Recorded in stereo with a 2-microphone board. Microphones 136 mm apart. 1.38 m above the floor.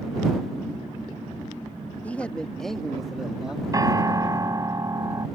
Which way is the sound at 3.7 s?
25° right (ahead or behind).